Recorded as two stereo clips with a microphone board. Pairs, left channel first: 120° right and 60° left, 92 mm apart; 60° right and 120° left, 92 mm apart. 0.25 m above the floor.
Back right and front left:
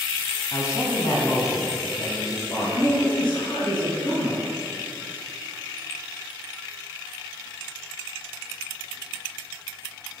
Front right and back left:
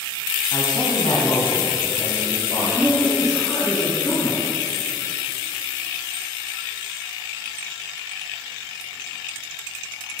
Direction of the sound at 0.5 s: 105° right.